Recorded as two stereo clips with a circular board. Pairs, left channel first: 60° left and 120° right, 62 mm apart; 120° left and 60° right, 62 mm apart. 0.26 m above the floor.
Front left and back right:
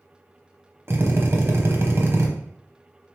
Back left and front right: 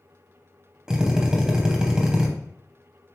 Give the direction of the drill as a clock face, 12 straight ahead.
4 o'clock.